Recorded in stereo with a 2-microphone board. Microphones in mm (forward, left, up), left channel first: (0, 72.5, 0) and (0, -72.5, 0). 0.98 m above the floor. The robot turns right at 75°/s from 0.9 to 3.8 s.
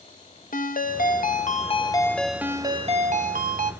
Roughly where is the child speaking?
I don't hear a child speaking.